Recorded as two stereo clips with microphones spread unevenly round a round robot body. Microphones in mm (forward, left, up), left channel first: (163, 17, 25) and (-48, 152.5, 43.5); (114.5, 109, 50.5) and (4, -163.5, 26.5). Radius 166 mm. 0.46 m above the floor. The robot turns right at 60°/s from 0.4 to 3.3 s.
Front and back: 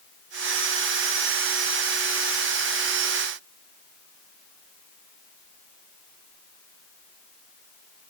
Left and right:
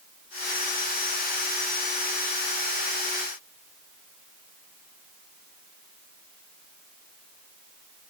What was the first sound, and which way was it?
Only background noise.